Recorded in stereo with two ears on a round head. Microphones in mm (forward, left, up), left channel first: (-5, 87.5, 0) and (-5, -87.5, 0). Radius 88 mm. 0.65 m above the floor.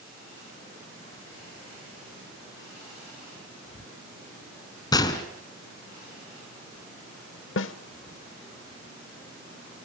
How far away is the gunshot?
About 2 m.